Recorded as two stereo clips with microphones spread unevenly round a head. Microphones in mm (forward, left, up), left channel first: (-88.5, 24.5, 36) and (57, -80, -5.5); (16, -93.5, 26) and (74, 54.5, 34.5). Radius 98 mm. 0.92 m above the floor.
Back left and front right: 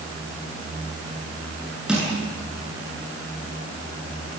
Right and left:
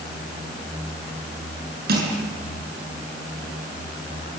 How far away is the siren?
I don't hear a siren.